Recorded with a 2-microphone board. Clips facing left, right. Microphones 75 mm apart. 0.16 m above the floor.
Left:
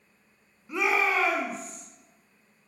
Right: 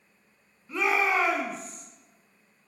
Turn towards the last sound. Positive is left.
turn(degrees=-45)  # may be behind; listen again after turning